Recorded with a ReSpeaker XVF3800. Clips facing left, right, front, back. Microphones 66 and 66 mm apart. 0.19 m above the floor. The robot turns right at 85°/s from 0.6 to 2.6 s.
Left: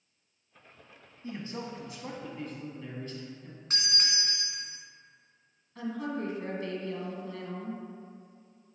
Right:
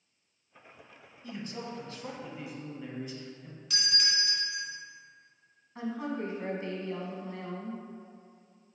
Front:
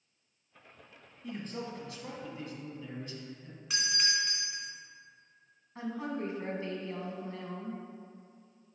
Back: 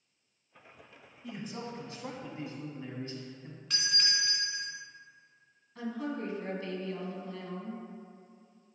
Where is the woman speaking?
45° right, 1.3 m.